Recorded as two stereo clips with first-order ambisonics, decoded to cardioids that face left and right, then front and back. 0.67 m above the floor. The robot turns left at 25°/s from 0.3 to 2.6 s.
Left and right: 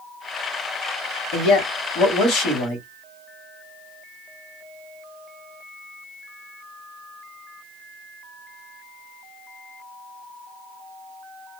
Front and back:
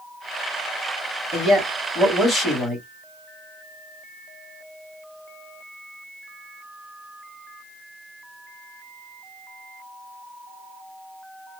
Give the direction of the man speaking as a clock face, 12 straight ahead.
9 o'clock.